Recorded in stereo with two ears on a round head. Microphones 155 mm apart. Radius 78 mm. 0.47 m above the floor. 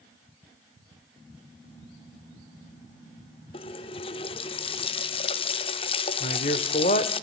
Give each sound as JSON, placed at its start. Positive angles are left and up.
{"t": 3.5, "sound": "a running tap", "side_deg": 35, "distance_m": 0.6}
{"t": 6.2, "sound": "a man speaking", "side_deg": 40, "distance_m": 1.2}